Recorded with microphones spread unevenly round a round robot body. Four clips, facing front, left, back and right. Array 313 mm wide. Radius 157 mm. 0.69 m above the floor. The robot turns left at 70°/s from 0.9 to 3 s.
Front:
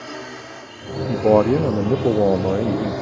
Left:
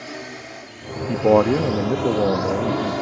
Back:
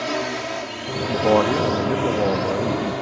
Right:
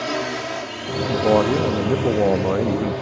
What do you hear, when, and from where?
0.0 s a drone: 130° right; by 3.0 s 85° left
1.1 s a man speaking: 75° left; by 2.9 s 55° right